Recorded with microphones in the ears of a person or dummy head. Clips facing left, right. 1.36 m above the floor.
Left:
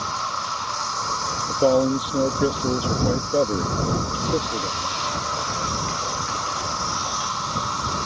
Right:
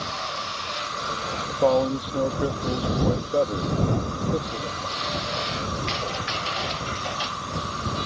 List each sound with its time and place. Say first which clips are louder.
0.0 s an insect: left 2 dB; 75° left (ahead or behind)
1.5 s a man speaking: left 2 dB; 25° left (ahead or behind)